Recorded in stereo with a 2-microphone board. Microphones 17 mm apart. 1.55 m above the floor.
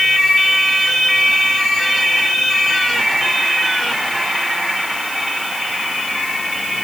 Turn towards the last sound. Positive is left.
No sound to turn to.